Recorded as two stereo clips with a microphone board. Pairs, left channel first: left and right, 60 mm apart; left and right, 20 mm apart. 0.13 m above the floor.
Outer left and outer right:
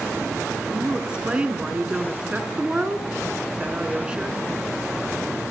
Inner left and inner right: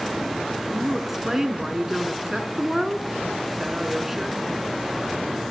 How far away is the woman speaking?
About 1.1 m.